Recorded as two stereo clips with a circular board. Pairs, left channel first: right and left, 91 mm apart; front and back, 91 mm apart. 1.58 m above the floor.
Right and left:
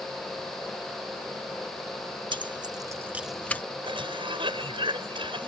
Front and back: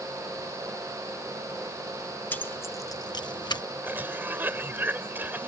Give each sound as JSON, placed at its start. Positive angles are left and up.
{"t": 2.3, "sound": "keys jangling", "azimuth_deg": 70}
{"t": 3.8, "sound": "a cough", "azimuth_deg": 115}